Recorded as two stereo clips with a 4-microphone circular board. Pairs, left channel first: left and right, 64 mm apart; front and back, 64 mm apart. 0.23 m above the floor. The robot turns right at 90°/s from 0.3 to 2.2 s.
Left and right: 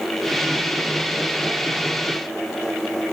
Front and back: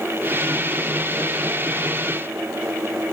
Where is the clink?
No clink in this recording.